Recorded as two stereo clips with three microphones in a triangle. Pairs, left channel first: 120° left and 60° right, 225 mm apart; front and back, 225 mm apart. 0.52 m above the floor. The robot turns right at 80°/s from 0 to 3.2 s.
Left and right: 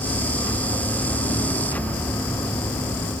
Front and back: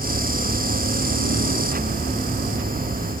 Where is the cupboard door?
I don't hear a cupboard door.